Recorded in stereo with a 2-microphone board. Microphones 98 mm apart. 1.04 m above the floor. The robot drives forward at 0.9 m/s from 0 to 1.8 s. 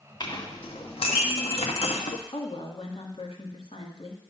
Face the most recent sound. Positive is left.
turn(degrees=70)  # may be behind; listen again after turning